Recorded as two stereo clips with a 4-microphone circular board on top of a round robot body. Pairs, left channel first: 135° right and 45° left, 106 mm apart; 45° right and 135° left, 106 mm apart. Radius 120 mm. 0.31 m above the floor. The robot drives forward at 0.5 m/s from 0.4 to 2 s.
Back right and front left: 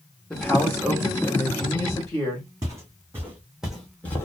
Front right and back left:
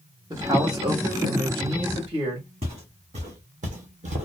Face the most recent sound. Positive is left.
turn(degrees=155)